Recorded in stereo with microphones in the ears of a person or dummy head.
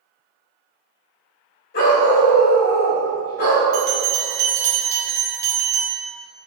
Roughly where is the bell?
Centre.